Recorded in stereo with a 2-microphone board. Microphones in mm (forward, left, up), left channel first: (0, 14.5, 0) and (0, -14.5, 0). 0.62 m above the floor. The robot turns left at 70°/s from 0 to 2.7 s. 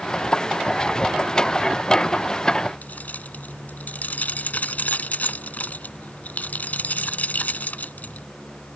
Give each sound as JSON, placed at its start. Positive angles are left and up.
{"t": 2.8, "sound": "keys jangling", "side_deg": 65}